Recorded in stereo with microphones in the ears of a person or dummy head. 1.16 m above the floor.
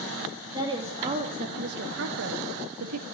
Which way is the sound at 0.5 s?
25° right (ahead or behind).